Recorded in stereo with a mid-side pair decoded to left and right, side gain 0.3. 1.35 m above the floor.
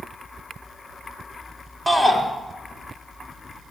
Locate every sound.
1.9 s a shout: 5° right, 3 m